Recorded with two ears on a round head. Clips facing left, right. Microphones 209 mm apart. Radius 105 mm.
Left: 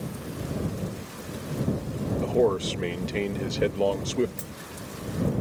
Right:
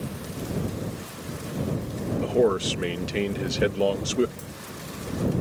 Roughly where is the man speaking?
Centre.